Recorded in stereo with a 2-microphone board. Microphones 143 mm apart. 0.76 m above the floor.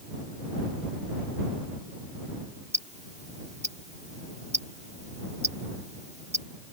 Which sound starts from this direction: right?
Ticking, at 2.7 s.